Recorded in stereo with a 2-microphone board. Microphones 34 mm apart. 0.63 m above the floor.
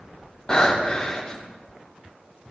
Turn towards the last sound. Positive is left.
turn(degrees=25)  # may be behind; listen again after turning